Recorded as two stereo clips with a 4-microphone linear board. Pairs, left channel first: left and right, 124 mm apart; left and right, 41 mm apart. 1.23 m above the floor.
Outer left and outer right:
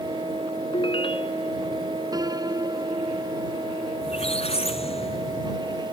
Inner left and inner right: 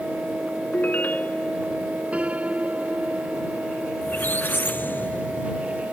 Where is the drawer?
No drawer in this recording.